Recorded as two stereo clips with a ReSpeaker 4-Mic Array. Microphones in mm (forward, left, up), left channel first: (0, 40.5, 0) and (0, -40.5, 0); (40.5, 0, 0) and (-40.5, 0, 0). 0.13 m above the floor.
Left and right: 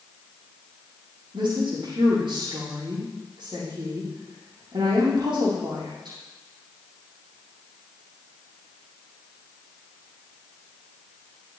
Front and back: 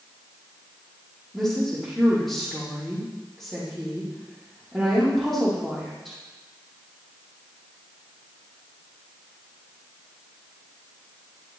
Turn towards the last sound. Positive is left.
turn(degrees=-90)